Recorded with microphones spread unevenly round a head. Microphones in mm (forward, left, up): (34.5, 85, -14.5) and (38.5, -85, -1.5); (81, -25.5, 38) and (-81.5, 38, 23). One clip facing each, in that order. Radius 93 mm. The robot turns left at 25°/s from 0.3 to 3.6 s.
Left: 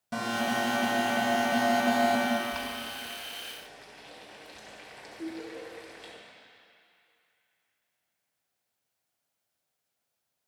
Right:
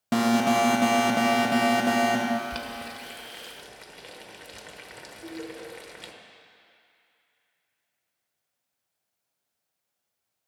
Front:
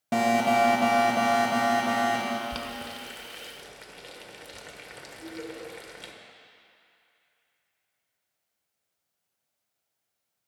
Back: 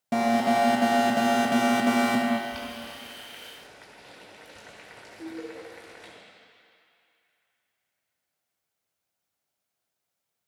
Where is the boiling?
40° right, 1.4 m; by 6.1 s 70° right, 1.4 m.